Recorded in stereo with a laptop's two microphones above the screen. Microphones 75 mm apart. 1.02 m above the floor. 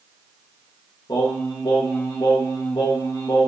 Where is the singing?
70° left (ahead or behind), 0.9 m.